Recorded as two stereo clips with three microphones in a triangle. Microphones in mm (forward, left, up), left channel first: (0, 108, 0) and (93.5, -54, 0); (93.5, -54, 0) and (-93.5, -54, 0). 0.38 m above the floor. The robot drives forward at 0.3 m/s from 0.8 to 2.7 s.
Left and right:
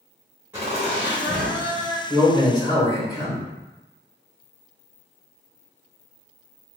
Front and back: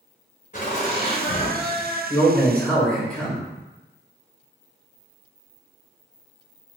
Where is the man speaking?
60° left, 1.3 m; by 3.5 s 75° left, 1.2 m.